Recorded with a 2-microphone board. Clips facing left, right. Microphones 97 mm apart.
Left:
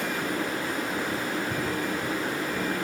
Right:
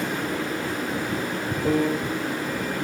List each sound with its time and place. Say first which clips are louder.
1.6 s a piano: right 7 dB; 50° right (ahead or behind)